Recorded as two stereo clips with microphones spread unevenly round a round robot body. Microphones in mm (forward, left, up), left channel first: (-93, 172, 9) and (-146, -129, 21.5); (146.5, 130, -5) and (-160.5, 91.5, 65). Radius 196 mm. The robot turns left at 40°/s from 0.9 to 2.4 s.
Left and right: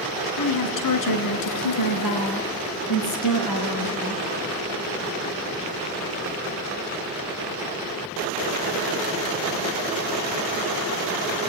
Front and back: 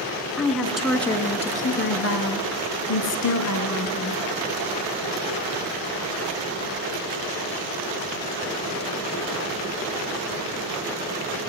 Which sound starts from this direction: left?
A woman speaking, at 0.4 s.